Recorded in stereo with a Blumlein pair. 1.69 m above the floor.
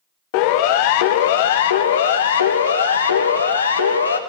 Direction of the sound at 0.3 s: 45° left.